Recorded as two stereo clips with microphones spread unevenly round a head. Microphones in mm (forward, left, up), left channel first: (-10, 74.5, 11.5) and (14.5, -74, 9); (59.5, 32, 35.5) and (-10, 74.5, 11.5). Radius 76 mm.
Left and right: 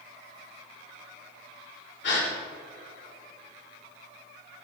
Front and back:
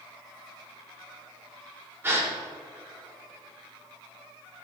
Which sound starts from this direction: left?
A gasp, at 2.0 s.